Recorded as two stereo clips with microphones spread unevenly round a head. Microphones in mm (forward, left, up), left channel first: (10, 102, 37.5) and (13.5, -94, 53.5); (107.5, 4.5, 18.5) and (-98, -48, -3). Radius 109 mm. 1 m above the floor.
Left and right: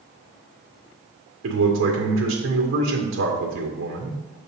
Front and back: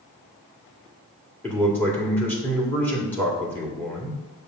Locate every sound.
1.4 s a man speaking: 70° right, 2 m